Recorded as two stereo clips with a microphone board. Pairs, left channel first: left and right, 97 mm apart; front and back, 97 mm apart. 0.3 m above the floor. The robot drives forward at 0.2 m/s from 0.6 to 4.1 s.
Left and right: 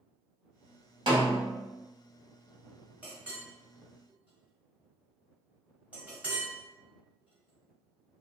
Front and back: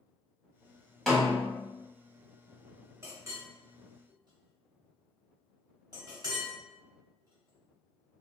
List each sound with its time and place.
1.1 s a snare drum: 85° right, 1.0 m; by 1.6 s 95° right, 1.0 m
3.0 s a clink: 150° right, 0.9 m; by 8.2 s 160° right, 1.0 m